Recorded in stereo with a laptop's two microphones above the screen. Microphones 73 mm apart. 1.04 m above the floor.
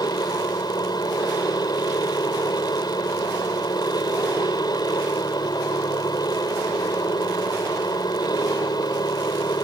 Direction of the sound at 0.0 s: 75° left (ahead or behind).